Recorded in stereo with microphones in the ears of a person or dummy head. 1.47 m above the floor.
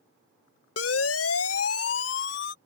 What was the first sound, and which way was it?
A siren, 75° left (ahead or behind).